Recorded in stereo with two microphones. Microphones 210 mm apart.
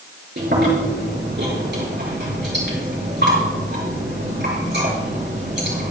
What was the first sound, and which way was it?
Chewing, 55° right (ahead or behind).